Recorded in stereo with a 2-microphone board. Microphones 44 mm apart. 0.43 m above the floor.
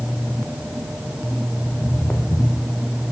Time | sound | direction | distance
1.6 | footsteps | 75° left (ahead or behind) | 3.5 m